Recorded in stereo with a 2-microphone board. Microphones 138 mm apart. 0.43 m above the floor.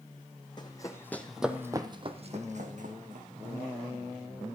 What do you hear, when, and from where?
0.6 s running footsteps: 30° left (ahead or behind), 1.5 m; by 3.7 s 80° right, 2.5 m